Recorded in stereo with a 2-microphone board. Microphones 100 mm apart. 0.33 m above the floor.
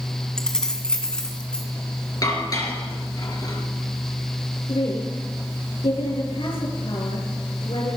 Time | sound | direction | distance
0.4 | keys jangling | 5° left (ahead or behind) | 1.9 m
2.2 | dishes clattering | 40° left (ahead or behind) | 3.5 m
4.7 | a woman speaking | 70° left (ahead or behind) | 5.5 m